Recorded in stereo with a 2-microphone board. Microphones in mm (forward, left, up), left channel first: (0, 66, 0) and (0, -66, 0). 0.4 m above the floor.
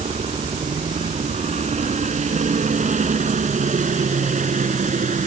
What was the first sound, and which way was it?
A helicopter, 60° right (ahead or behind).